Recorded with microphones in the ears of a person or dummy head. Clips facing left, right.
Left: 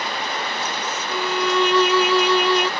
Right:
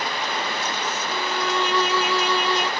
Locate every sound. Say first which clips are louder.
1.1 s a violin: left 6 dB; 60° left (ahead or behind)